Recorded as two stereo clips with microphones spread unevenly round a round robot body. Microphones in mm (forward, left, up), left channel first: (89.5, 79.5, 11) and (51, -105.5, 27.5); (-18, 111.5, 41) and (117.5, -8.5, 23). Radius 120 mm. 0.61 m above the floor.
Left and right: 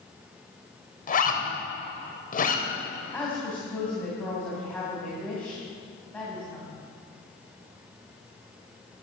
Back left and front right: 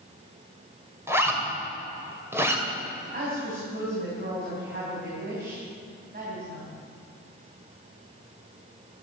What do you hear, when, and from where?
1.1 s a zipper: 35° left, 2.5 m
3.1 s a woman speaking: 5° right, 4 m